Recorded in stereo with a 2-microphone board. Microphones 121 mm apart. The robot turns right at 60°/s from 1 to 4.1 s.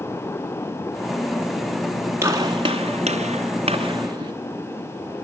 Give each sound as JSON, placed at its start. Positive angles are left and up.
{"t": 2.2, "sound": "a gunshot", "side_deg": -20, "distance_m": 3.0}